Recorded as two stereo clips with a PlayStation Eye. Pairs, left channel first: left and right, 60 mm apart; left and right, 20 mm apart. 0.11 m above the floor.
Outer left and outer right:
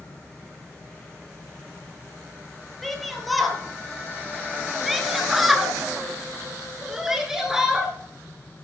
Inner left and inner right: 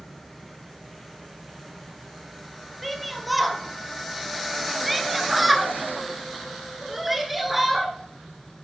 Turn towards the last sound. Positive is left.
turn(degrees=-5)  # may be behind; listen again after turning